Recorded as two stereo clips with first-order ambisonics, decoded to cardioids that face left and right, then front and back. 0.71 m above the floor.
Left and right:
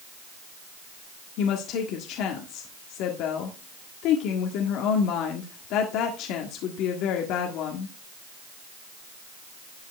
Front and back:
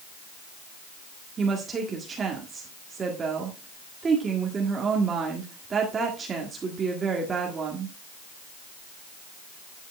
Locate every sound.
1.4 s a woman speaking: 115° left, 1.6 m